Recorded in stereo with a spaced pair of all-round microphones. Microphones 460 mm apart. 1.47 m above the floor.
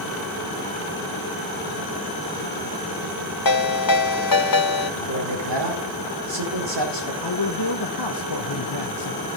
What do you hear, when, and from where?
3.5 s a ringtone: 50° left (ahead or behind), 1.3 m
5.0 s a man speaking: 65° right (ahead or behind), 4 m
7.2 s a man speaking: 60° left (ahead or behind), 1.1 m